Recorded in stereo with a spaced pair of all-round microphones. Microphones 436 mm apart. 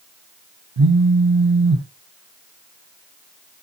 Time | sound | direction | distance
0.8 | a phone buzzing | 60° right (ahead or behind) | 1.0 m